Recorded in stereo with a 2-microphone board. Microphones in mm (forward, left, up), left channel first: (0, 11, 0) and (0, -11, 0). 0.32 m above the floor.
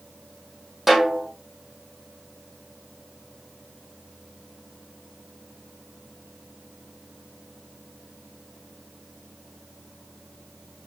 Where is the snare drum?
10° right (ahead or behind), 2.5 m.